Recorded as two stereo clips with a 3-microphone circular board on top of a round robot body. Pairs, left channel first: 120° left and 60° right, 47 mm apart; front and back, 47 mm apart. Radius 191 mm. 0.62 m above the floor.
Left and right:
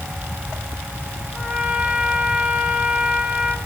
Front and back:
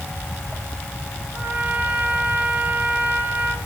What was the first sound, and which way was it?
A trumpet, 130° right.